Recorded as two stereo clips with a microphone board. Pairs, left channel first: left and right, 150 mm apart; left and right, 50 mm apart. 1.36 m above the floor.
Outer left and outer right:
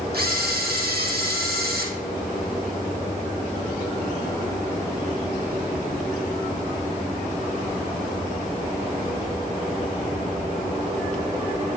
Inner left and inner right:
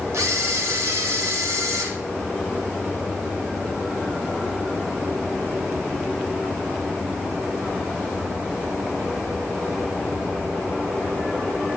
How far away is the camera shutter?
About 1.6 m.